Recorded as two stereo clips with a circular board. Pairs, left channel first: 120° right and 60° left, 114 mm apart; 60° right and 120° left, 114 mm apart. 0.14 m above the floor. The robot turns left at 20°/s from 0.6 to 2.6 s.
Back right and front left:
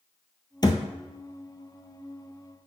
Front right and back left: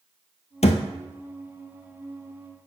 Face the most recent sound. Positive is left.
turn(degrees=-110)